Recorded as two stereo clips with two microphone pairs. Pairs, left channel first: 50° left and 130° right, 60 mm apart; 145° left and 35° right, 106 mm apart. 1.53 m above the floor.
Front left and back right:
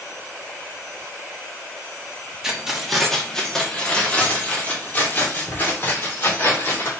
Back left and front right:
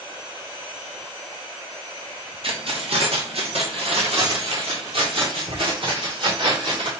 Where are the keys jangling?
50° right, 1.5 m; by 6.9 s straight ahead, 3.5 m.